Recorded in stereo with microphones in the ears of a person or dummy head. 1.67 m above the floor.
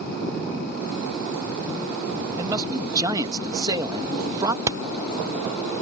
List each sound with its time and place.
2.4 s a man speaking: 25° right (ahead or behind)
4.7 s hammering: 10° right (ahead or behind)